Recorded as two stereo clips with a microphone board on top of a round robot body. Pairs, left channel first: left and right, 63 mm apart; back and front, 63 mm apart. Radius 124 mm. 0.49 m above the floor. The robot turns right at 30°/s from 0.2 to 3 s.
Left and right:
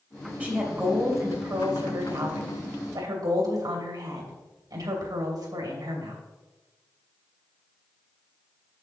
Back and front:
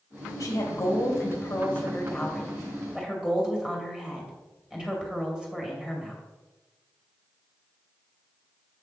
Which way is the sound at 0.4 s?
155° right.